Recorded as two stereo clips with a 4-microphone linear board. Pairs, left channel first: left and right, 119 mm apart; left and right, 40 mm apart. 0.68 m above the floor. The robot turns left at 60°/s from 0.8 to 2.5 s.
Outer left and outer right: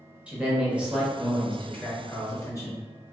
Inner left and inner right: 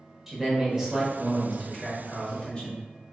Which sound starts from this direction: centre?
A man speaking, at 0.3 s.